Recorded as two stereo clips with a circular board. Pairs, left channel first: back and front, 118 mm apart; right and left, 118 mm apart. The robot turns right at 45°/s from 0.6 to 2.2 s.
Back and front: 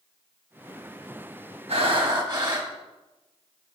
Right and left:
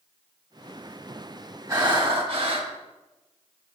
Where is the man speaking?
I don't hear a man speaking.